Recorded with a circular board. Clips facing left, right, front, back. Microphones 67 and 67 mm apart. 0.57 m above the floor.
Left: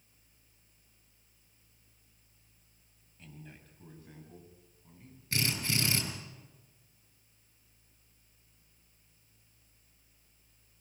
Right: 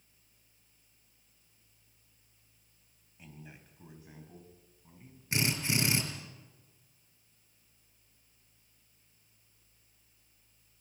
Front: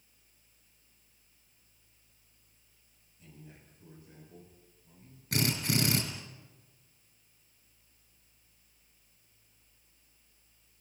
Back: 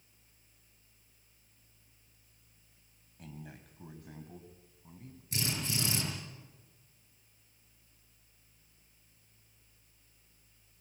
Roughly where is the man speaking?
Behind.